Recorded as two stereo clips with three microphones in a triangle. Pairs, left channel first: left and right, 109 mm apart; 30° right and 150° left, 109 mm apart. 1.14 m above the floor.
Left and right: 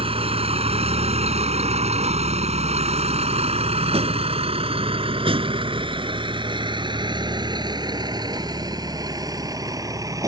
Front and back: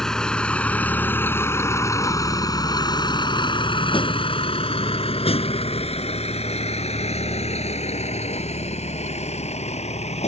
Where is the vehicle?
115° right; by 10.3 s 30° right.